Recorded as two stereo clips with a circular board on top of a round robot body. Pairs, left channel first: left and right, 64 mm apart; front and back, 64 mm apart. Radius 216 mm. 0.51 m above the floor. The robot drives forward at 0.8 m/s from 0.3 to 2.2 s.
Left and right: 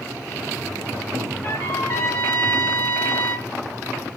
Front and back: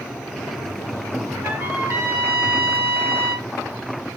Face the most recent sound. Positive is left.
turn(degrees=135)